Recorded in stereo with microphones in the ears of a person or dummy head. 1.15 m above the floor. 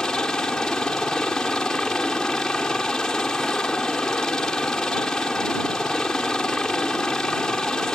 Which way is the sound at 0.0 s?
5° left (ahead or behind).